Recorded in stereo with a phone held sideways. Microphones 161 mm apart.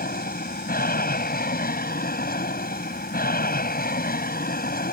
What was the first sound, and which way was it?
An aircraft, 75° left (ahead or behind).